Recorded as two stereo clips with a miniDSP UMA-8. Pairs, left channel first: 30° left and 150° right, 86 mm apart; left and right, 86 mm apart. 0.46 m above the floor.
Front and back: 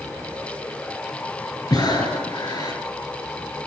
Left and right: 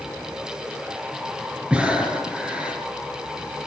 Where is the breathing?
10° right, 5 m.